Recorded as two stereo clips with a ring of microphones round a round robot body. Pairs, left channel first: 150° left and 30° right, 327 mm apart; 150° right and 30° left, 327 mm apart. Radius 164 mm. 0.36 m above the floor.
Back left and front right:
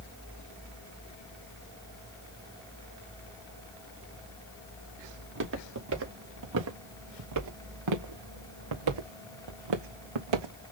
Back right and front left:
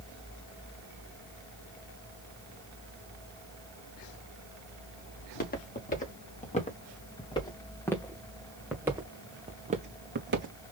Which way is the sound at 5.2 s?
85° right.